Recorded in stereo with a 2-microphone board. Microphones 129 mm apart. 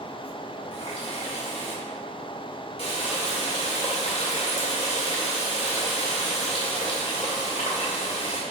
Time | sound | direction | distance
0.7 | a running tap | 50° left (ahead or behind) | 2 m